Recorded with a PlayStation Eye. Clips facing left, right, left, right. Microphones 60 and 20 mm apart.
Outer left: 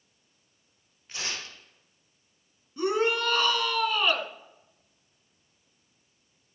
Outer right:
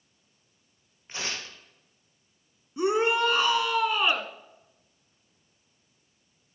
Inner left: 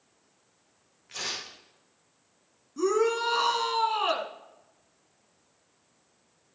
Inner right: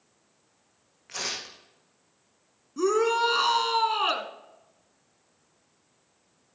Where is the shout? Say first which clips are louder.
Outer right 2 dB, inner right 2 dB; 20° right (ahead or behind), 1.3 m.